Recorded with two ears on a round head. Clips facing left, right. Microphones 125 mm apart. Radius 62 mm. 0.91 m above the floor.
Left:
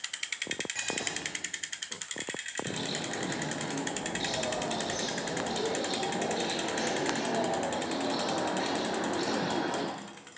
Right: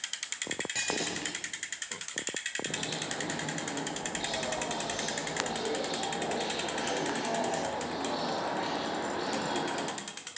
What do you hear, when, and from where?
0.8 s breaking glass: 40° right (ahead or behind), 8 m
2.6 s a bird: 60° left (ahead or behind), 8.5 m